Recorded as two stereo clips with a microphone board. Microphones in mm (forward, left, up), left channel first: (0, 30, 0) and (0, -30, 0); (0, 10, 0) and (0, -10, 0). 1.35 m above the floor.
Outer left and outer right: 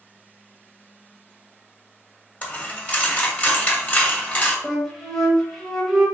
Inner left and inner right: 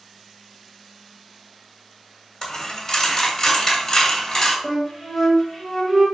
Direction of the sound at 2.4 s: 20° left (ahead or behind).